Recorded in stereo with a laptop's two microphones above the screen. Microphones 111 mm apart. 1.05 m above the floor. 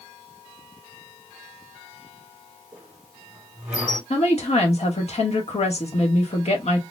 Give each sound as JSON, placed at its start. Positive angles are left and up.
{"t": 2.7, "sound": "a squeak", "side_deg": -15, "distance_m": 1.8}
{"t": 4.1, "sound": "a woman speaking", "side_deg": 70, "distance_m": 1.0}